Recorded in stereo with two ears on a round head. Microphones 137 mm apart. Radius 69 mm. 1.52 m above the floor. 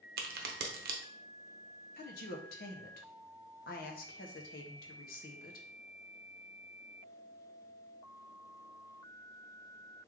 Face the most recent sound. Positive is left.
turn(degrees=65)  # may be behind; listen again after turning